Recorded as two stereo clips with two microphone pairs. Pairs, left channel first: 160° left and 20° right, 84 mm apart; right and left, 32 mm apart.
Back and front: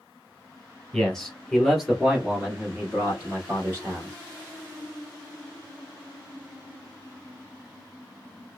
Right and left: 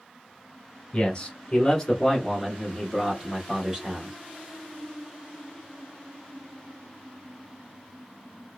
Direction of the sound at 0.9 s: 130° right.